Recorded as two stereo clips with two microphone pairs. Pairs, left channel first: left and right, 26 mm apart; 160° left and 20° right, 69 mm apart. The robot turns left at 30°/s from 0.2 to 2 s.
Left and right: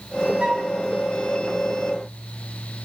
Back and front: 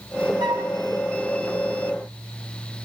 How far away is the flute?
About 2 m.